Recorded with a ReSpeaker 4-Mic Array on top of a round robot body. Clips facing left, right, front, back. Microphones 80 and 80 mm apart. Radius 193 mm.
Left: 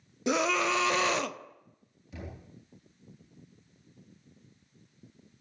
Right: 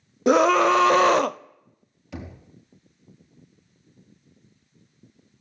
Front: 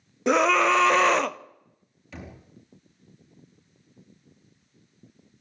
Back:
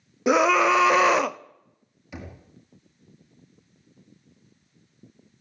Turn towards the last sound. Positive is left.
turn(degrees=-105)